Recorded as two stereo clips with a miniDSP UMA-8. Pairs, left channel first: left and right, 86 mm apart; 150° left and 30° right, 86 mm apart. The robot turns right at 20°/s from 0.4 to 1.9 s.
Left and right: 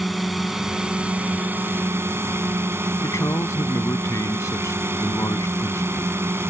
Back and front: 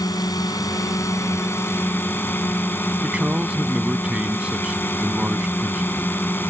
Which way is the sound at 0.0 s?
175° right.